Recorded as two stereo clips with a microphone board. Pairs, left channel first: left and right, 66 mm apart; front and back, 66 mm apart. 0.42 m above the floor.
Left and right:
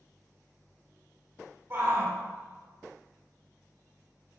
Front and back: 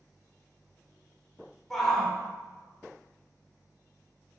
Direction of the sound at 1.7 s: 80° right.